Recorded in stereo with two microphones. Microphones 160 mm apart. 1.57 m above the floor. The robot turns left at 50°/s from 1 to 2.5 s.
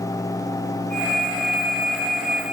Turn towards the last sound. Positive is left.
No sound to turn to.